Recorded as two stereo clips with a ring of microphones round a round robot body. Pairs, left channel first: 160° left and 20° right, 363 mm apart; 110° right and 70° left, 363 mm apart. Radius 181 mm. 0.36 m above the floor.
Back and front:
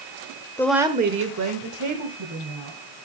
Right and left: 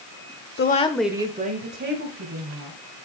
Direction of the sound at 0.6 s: 130° right.